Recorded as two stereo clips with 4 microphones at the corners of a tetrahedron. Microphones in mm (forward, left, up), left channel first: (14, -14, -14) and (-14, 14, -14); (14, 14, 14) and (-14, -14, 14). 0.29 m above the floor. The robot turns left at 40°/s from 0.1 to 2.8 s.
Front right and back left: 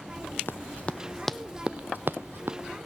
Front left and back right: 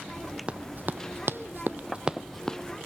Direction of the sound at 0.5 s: 75° right.